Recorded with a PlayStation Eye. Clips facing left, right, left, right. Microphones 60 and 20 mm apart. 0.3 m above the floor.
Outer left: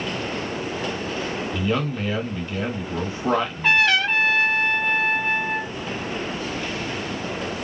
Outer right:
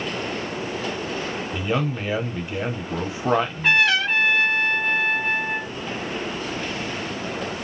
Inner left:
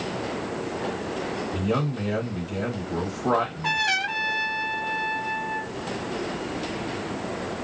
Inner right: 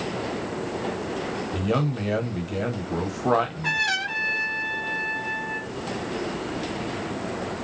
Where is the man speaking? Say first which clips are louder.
Even, inner right 2 dB; 15° right (ahead or behind), 1.0 m.